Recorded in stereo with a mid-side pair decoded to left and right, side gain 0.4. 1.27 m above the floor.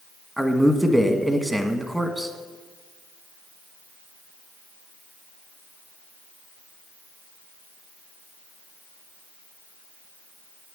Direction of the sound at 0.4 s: 5° right.